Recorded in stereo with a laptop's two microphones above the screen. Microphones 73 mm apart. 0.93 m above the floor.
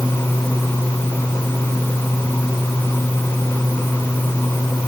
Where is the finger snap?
I don't hear a finger snap.